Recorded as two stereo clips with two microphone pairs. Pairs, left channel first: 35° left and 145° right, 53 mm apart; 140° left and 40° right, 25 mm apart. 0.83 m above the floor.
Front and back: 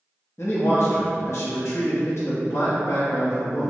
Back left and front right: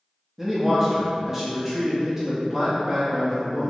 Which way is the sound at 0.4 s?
35° left.